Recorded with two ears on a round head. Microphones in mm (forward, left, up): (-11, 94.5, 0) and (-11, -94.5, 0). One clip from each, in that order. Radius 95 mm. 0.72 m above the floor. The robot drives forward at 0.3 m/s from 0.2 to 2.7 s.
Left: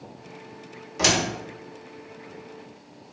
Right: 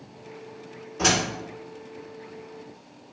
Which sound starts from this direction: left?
A door slam, at 1.0 s.